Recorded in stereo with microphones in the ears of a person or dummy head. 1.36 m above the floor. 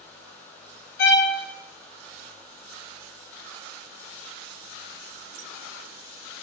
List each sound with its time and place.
1.0 s a violin: 50° left (ahead or behind), 0.8 m